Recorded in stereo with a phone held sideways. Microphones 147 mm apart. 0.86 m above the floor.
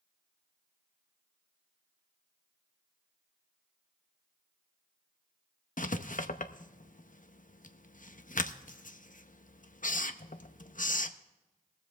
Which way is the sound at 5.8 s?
65° left (ahead or behind).